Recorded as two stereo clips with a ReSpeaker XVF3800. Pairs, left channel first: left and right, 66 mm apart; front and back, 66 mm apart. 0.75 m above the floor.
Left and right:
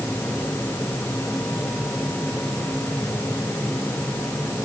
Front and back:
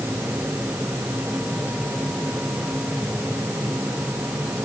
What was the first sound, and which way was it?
Only background noise.